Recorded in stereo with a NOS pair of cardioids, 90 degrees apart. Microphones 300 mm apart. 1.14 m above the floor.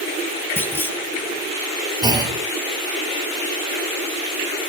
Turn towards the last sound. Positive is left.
turn(degrees=-15)